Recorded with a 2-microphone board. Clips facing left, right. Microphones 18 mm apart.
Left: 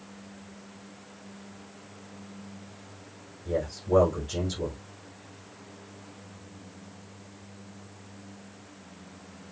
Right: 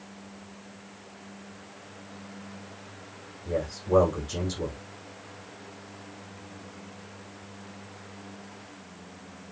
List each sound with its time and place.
3.5 s a man speaking: 25° right (ahead or behind), 6.5 m